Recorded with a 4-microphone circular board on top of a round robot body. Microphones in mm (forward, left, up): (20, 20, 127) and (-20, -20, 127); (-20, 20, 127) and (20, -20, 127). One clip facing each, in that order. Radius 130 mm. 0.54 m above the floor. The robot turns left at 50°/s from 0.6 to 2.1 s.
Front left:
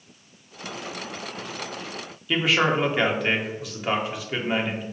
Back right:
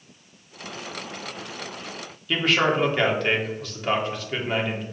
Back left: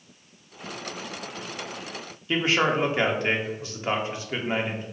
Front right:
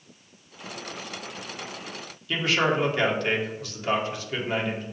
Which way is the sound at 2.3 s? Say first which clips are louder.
Even, back left 1 dB; 120° left.